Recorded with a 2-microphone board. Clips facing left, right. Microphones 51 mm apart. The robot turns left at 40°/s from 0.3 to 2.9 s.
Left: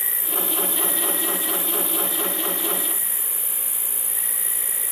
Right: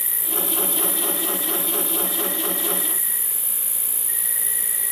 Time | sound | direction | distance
0.0 | an insect | 60° left | 5 m